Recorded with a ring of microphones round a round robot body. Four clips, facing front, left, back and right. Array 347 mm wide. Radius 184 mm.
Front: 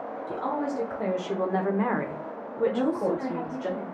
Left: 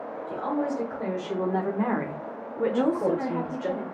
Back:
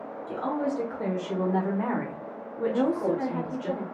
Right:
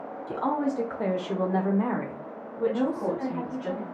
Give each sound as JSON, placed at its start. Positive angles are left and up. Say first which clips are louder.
{"t": 0.3, "sound": "a woman speaking", "louder": "right 1 dB, back 1 dB", "azimuth_deg": -85, "distance_m": 1.2}
{"t": 2.7, "sound": "a woman speaking", "louder": "left 3 dB, back 1 dB", "azimuth_deg": 115, "distance_m": 1.0}